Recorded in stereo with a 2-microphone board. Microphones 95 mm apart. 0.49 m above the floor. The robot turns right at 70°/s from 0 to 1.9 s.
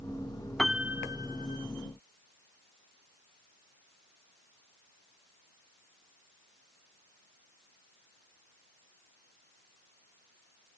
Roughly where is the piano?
Behind.